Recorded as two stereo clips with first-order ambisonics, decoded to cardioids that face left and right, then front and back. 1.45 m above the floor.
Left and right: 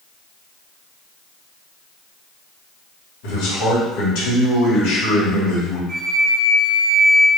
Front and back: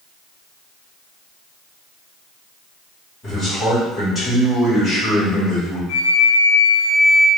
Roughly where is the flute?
Ahead.